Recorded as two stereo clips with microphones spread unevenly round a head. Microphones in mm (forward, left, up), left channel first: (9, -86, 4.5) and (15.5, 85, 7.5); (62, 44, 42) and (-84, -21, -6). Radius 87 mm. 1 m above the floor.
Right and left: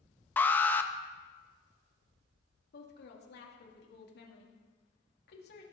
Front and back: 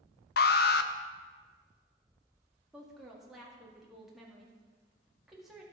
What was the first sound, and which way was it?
An alarm, 15° right.